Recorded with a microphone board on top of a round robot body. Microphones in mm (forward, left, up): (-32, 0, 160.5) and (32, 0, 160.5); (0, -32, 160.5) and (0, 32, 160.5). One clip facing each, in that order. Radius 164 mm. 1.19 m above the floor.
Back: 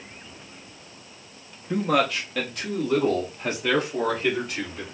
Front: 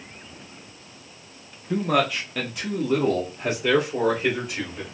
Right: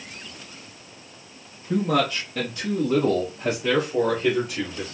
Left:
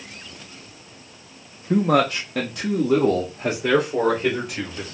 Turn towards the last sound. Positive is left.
turn(degrees=80)